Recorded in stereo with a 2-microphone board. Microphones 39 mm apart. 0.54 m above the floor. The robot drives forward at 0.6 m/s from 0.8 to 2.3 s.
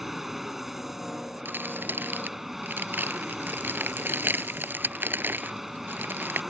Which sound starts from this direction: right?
Crumpling, at 1.4 s.